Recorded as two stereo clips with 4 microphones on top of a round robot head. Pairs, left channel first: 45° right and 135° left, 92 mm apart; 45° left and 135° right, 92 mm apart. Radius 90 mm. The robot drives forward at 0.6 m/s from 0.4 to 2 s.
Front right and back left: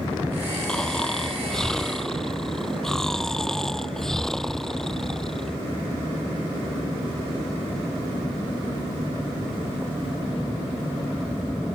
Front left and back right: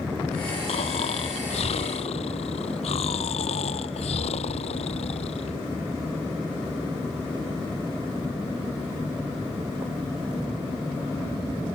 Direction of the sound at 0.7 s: 40° left.